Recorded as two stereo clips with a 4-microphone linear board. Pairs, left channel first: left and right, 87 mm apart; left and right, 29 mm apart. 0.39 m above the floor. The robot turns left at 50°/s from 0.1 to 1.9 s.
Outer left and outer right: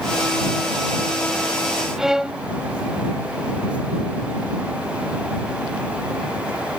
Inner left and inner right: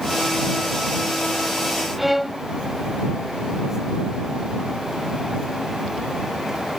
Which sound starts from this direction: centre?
A violin, at 2.0 s.